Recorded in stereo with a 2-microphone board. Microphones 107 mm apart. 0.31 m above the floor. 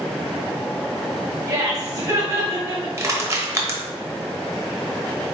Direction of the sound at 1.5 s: 35° right (ahead or behind).